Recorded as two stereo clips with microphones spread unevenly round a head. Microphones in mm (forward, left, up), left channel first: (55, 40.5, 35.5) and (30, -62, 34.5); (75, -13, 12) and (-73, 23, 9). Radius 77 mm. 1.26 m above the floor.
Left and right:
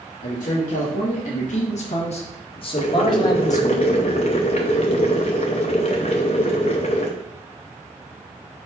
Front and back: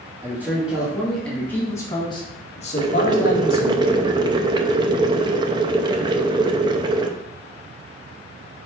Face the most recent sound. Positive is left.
turn(degrees=110)